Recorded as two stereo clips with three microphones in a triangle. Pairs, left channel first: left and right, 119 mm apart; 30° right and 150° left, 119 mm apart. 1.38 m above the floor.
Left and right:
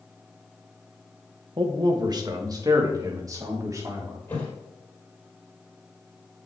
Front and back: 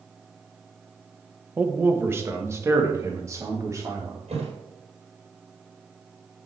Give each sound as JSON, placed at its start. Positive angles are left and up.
{"t": 1.6, "sound": "a man speaking", "azimuth_deg": -135, "distance_m": 1.1}
{"t": 4.3, "sound": "a thud", "azimuth_deg": 160, "distance_m": 4.5}